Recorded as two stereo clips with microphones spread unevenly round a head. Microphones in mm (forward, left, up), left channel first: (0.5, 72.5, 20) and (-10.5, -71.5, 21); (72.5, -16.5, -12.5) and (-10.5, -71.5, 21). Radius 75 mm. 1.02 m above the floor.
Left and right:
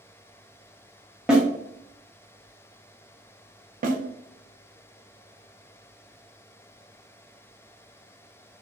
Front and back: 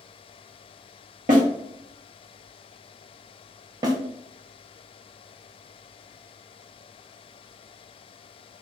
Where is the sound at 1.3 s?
Straight behind, 0.7 m.